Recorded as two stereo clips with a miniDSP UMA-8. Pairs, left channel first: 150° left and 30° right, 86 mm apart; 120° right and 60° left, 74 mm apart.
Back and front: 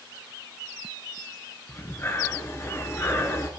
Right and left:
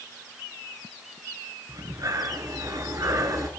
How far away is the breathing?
About 1.6 m.